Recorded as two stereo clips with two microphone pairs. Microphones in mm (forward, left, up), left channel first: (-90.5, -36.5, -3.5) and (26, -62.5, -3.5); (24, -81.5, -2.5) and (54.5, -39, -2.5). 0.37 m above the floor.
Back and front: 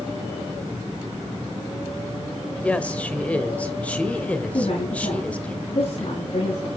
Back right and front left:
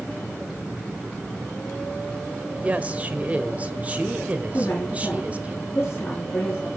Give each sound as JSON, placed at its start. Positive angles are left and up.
{"t": 2.6, "sound": "a woman speaking", "azimuth_deg": 95, "distance_m": 1.1}
{"t": 4.5, "sound": "a woman speaking", "azimuth_deg": -165, "distance_m": 4.5}